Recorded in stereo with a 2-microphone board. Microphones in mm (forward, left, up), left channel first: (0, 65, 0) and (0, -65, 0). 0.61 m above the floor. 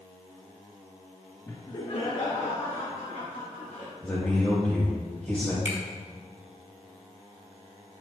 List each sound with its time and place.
1.5 s laughter: 20° left (ahead or behind), 0.9 m; by 3.9 s 55° left (ahead or behind), 3.5 m
4.0 s a man speaking: 15° left (ahead or behind), 3 m
5.7 s a finger snap: 65° left (ahead or behind), 2 m